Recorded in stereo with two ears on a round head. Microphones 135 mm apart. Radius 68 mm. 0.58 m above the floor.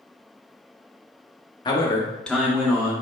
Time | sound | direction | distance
1.6 | a man speaking | 30° left (ahead or behind) | 0.8 m